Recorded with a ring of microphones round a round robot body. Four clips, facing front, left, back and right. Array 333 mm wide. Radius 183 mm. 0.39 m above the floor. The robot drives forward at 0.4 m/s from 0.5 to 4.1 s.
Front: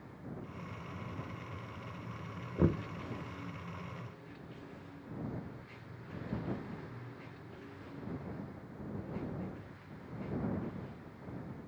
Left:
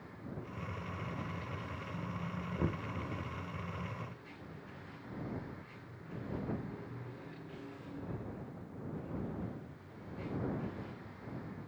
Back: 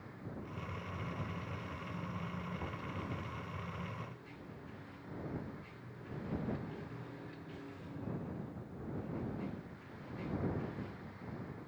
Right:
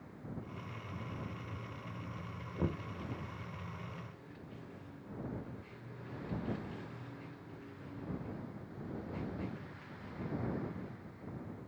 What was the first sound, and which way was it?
Knocking, 5° left.